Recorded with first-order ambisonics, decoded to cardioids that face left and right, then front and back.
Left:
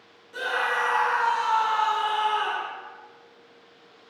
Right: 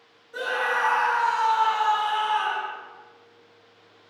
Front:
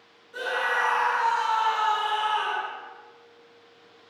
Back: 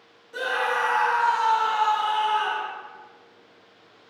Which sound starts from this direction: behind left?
A scream, at 0.3 s.